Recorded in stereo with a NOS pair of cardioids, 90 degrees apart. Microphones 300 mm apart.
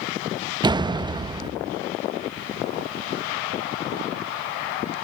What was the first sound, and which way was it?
A door slam, 15° right.